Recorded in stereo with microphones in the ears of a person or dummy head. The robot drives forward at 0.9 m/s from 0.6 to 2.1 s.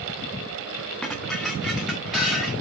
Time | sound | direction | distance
1.0 | dishes clattering | 5° left (ahead or behind) | 0.8 m